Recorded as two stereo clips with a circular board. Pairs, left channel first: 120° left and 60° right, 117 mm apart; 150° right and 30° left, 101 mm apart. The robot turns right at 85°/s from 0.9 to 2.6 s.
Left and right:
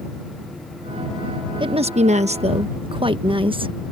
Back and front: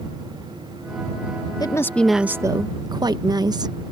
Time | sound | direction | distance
1.6 | a woman speaking | 105° right | ?